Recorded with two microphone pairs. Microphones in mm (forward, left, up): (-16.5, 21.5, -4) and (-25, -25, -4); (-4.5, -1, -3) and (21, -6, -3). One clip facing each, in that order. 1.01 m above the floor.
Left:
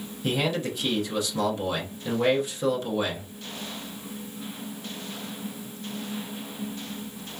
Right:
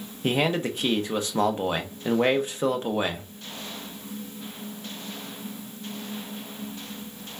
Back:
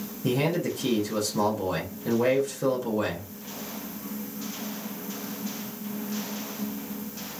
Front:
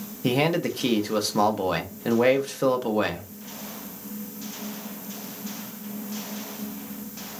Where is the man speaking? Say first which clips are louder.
Right 3 dB, front 3 dB; 55° right, 0.9 m.